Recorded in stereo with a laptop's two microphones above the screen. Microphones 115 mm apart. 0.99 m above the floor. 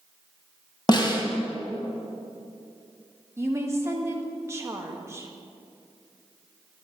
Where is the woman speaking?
25° right (ahead or behind), 1.3 m.